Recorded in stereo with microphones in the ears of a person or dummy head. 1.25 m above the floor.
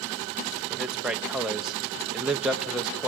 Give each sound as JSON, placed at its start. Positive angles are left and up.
{"t": 0.7, "sound": "a man speaking", "side_deg": -5, "distance_m": 1.1}